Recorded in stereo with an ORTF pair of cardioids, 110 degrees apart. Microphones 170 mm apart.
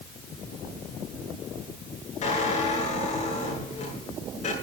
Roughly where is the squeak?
Ahead left.